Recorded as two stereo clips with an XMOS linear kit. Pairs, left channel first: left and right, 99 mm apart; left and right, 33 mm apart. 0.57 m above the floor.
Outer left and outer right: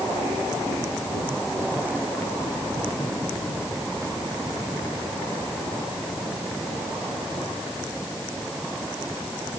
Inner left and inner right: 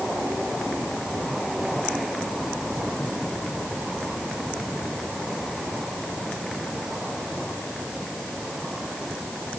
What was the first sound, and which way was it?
Only background noise.